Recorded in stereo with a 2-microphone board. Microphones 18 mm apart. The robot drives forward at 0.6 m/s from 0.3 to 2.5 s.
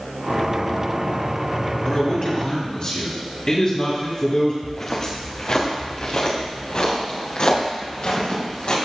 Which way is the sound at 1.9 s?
55° left (ahead or behind).